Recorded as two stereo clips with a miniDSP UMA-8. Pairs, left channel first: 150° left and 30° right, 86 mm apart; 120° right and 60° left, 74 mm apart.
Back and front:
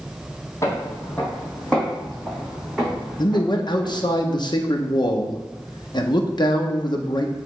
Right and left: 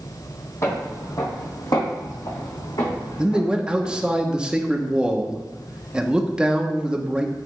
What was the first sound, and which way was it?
Footsteps, 160° right.